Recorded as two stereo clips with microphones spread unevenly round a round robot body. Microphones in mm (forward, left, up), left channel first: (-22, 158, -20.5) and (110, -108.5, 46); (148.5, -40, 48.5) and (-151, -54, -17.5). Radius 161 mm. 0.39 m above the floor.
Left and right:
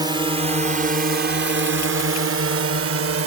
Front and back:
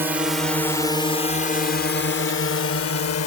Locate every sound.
0.0 s a drone: 150° right; by 3.3 s 25° right